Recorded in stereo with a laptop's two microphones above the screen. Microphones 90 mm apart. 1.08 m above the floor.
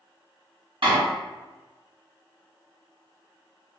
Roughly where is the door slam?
Right.